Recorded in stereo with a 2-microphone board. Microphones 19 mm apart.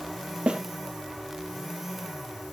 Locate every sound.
0.5 s a snare drum: 65° right (ahead or behind), 2.5 m